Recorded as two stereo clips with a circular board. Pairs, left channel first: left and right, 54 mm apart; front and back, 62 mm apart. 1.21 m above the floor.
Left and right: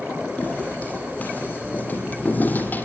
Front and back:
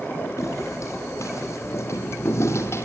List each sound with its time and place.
0.4 s footsteps: 35° left, 4.5 m; by 2.9 s 40° left, 2.5 m